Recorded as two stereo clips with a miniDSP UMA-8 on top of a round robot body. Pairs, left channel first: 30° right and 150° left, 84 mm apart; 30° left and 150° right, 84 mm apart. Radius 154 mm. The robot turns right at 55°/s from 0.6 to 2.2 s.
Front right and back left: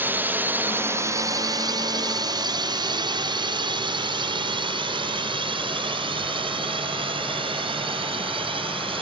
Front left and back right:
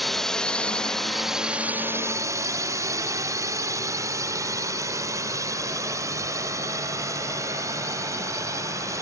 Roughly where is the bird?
I don't hear a bird.